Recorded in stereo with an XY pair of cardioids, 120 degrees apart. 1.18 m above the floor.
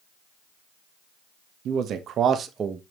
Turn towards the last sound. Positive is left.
turn(degrees=-30)